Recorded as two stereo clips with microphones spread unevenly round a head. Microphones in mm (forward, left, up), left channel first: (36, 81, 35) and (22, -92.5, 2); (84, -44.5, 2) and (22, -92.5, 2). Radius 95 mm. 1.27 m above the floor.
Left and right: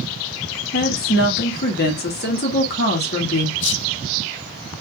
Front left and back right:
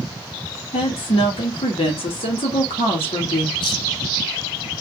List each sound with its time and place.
0.7 s a woman speaking: 50° left, 1.8 m
3.6 s whispering: 65° left, 0.8 m